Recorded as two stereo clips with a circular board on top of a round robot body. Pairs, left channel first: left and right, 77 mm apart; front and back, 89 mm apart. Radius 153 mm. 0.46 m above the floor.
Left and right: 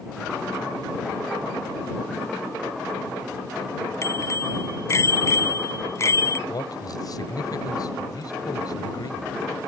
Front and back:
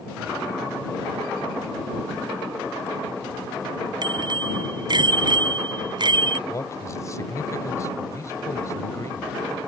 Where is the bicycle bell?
145° left.